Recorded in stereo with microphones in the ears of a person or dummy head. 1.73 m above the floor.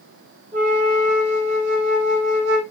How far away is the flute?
About 3 m.